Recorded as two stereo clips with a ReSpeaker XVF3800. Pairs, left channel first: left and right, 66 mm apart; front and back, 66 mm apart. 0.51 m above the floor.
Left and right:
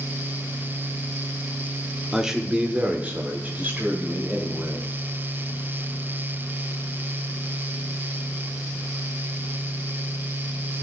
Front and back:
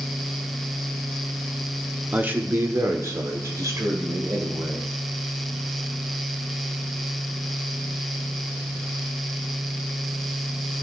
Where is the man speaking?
165° right, 0.8 m; by 4.8 s 150° right, 2.5 m.